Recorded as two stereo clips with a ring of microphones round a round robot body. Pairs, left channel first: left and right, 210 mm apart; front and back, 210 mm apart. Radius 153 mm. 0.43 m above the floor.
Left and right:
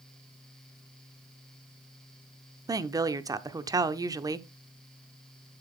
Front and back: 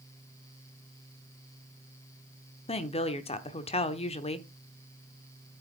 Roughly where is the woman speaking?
Ahead right.